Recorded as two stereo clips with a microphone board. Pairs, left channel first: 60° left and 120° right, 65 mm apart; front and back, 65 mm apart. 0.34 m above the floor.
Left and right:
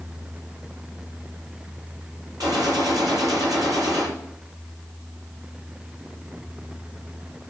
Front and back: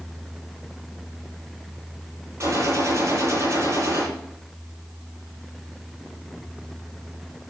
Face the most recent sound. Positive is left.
turn(degrees=-140)